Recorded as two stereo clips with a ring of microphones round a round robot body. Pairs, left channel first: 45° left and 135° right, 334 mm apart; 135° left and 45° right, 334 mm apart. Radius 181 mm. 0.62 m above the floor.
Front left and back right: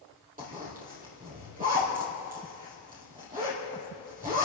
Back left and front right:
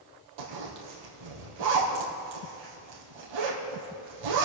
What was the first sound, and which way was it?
A zipper, 65° right.